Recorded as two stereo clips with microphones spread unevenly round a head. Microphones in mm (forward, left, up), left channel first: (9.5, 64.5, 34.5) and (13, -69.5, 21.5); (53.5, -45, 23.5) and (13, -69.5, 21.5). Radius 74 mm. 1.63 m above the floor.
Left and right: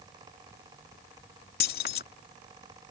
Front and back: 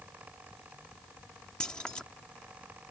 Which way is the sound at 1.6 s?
115° left.